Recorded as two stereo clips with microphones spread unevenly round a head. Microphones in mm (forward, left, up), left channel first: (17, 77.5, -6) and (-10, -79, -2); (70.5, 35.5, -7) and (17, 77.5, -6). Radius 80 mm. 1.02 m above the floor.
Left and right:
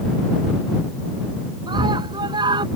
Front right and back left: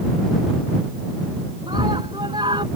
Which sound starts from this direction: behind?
A scream, at 1.7 s.